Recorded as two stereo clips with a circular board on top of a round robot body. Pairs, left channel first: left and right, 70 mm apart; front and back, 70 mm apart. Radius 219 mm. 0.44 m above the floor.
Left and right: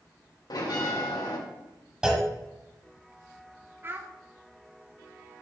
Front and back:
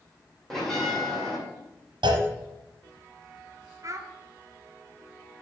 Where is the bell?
85° left, 2.5 m.